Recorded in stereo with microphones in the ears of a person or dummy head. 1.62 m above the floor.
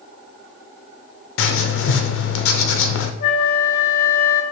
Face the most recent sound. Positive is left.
turn(degrees=45)  # may be behind; listen again after turning